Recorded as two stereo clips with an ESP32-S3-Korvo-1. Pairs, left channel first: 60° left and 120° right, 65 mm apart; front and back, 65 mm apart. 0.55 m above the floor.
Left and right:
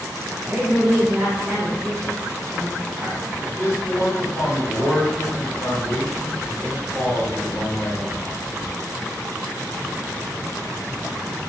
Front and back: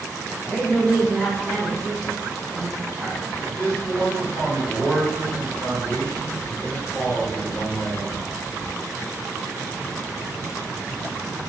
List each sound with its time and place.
0.4 s a woman speaking: 85° right, 1.2 m; by 3.2 s 125° left, 1.3 m
3.4 s a man speaking: 50° left, 0.9 m